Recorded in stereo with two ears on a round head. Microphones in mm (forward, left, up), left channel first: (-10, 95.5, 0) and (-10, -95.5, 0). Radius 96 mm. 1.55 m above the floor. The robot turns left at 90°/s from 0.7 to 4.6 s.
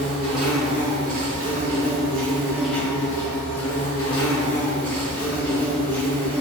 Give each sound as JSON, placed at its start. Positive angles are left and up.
{"t": 0.0, "sound": "an insect", "azimuth_deg": 0, "distance_m": 1.7}